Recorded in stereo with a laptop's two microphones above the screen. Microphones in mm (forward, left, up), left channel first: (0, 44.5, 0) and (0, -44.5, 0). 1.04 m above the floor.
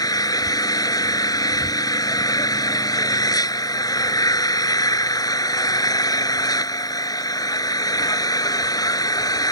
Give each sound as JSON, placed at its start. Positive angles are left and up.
{"t": 0.0, "sound": "an engine running", "side_deg": 45}